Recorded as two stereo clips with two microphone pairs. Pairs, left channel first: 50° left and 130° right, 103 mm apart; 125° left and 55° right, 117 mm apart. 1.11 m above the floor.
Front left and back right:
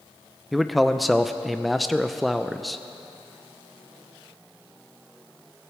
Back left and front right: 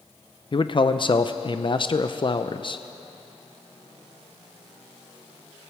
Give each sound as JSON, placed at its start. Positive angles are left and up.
{"t": 0.5, "sound": "a man speaking", "azimuth_deg": 140, "distance_m": 0.6}